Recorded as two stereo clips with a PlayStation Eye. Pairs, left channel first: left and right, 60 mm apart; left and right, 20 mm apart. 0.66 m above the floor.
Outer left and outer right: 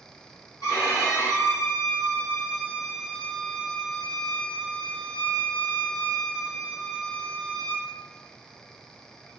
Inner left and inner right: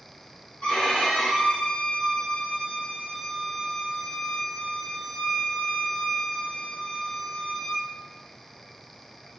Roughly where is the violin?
Left.